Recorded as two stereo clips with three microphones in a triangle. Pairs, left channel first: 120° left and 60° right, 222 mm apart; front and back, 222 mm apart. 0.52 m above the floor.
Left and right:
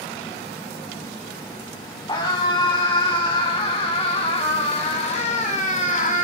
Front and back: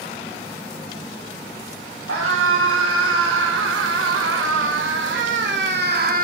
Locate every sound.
2.1 s a scream: 175° right, 4.5 m; by 6.2 s 155° left, 1.7 m